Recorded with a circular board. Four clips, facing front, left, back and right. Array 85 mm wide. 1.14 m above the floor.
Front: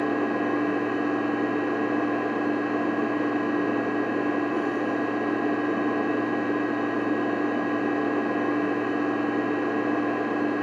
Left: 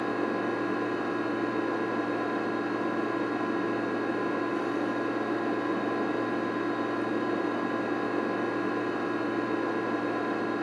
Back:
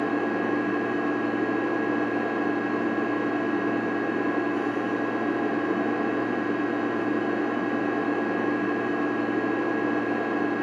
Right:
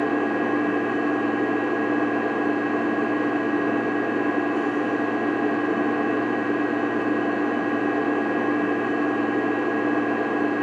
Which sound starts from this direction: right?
An engine running, at 0.0 s.